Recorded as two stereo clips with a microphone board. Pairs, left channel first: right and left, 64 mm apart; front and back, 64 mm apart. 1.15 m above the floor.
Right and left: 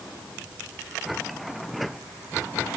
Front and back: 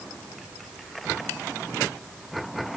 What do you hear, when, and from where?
Only background noise.